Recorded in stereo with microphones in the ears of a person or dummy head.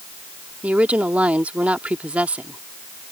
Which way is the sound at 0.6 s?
5° right (ahead or behind).